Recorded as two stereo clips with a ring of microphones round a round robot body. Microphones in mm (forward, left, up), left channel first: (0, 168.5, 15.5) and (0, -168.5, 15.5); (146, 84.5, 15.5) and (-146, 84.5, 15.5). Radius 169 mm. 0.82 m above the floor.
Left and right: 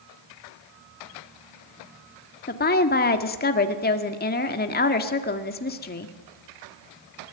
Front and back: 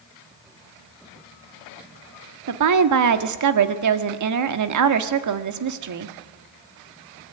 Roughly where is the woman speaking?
Behind left.